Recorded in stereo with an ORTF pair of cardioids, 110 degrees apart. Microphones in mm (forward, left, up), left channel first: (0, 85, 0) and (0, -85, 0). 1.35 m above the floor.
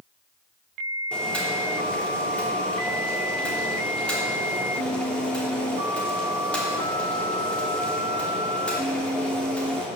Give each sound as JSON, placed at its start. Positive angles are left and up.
{"t": 1.1, "sound": "boiling", "azimuth_deg": 5, "distance_m": 3.0}